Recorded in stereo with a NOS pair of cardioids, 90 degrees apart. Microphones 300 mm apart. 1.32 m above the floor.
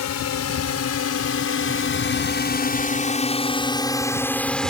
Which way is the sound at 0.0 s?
65° left.